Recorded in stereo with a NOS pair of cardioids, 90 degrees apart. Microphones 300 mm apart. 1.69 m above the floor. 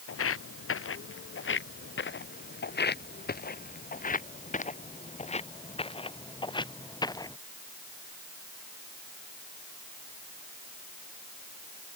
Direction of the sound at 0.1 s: 50° left.